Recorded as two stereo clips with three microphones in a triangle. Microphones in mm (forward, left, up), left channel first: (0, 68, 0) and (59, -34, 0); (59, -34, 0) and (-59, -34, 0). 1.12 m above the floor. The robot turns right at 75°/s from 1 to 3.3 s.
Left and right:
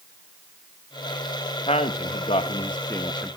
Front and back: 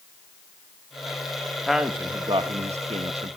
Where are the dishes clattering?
I don't hear dishes clattering.